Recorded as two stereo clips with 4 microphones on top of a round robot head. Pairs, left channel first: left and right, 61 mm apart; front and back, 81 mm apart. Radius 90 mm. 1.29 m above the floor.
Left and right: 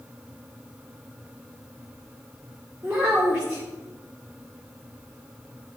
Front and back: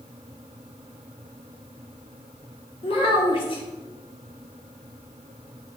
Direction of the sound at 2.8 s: 15° right.